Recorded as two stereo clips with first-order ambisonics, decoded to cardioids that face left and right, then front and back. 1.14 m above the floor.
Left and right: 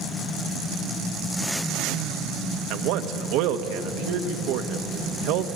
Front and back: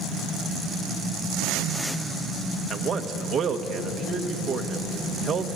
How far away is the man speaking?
About 1.1 m.